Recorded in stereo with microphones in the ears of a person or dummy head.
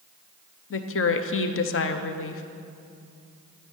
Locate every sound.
0.7 s a woman speaking: 60° left (ahead or behind), 0.7 m